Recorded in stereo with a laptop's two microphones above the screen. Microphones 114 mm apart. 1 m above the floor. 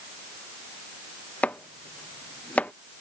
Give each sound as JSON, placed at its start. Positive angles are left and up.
{"t": 1.4, "sound": "chopping", "side_deg": 15}